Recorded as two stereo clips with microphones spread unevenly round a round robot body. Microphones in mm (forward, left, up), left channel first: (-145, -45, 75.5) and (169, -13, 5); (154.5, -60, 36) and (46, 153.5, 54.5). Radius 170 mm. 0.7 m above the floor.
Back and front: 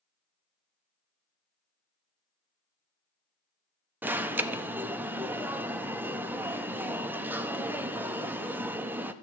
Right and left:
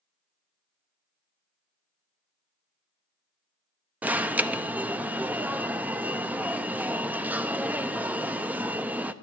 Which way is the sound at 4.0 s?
30° left.